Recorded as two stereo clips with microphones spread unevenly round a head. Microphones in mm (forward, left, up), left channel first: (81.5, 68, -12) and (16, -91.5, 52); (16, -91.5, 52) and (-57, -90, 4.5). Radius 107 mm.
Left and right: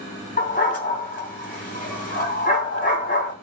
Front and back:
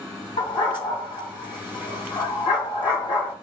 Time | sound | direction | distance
0.4 | a dog barking | 20° left | 2 m